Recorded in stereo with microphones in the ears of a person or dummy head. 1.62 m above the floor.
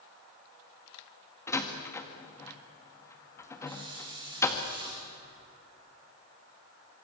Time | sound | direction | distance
1.5 | a door slam | 15° left (ahead or behind) | 1.7 m
3.7 | a hiss | 20° right (ahead or behind) | 6 m